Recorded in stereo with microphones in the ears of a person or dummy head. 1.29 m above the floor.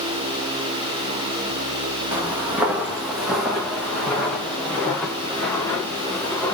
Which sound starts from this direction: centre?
Footsteps, at 2.1 s.